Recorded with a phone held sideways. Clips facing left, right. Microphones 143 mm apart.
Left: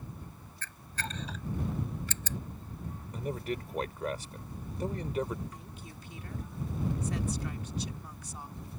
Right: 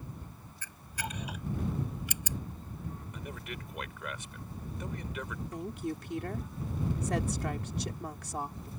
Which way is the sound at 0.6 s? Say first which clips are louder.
Even; 15° right (ahead or behind).